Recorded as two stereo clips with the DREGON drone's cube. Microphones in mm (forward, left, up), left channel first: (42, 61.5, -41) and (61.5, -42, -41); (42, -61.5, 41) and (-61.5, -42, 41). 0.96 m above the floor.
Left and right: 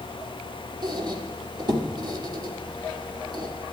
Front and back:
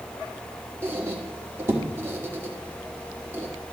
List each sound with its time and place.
0.8 s a squeak: 125° right, 1.2 m